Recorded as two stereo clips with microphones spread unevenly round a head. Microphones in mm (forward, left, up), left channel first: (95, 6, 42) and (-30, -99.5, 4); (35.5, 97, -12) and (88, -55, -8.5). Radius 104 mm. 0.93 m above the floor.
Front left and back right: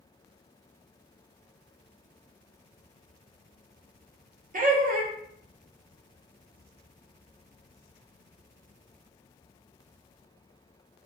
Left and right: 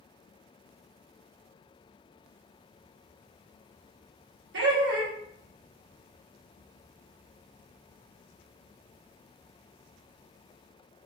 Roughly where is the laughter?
Right.